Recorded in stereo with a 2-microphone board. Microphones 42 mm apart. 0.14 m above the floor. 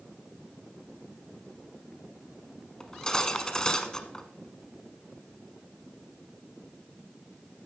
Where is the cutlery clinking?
15° left (ahead or behind), 0.8 m.